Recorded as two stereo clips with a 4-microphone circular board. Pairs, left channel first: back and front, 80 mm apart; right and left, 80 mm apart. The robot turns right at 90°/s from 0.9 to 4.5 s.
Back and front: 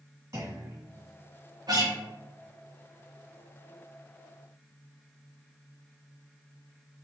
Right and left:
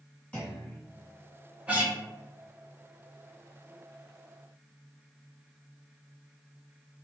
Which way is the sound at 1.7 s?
20° left.